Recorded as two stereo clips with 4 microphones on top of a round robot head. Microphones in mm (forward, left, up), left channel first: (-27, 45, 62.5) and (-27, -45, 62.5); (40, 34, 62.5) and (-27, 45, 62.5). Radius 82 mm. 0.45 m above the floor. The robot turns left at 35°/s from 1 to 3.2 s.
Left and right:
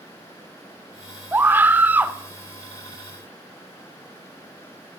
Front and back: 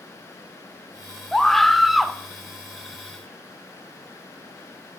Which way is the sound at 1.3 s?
85° right.